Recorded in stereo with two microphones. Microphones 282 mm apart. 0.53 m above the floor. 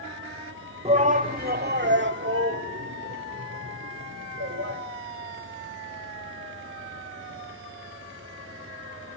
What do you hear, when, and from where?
0.8 s a shout: 20° right (ahead or behind), 1.5 m; by 4.8 s 50° right (ahead or behind), 3 m